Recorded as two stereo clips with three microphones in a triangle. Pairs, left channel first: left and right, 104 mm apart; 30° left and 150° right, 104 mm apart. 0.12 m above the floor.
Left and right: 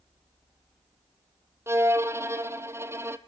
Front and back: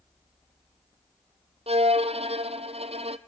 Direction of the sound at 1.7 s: 155° right.